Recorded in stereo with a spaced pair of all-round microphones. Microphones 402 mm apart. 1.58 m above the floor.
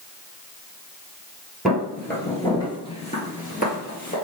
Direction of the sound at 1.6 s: Centre (ahead or behind).